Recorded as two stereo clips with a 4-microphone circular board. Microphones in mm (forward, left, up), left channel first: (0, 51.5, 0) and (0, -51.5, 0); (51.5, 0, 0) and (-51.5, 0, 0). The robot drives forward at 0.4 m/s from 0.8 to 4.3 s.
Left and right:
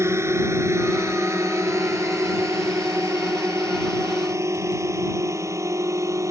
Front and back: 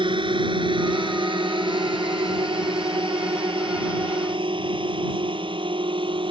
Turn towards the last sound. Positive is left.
turn(degrees=-150)